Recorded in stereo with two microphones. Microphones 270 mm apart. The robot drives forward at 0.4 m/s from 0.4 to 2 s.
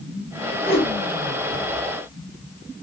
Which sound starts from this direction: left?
A whoosh, at 0.6 s.